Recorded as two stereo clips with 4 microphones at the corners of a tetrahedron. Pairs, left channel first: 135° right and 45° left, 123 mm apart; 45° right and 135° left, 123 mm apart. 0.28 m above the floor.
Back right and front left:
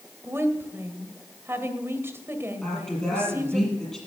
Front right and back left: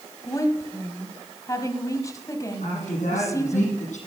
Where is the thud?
I don't hear a thud.